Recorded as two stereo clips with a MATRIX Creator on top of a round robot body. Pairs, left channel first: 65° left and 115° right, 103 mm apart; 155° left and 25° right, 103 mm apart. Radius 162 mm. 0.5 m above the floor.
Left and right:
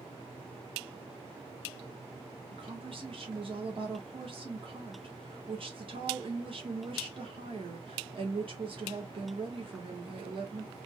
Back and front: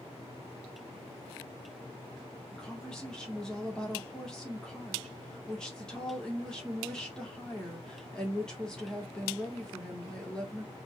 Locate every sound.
2.5 s a woman speaking: 120° right, 2 m